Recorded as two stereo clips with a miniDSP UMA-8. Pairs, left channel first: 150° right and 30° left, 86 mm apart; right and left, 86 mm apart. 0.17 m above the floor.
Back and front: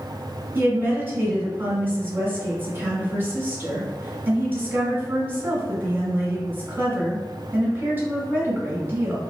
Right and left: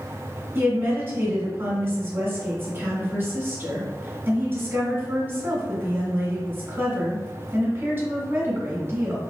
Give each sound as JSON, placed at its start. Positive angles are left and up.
{"t": 0.6, "sound": "a woman speaking", "azimuth_deg": 60, "distance_m": 1.2}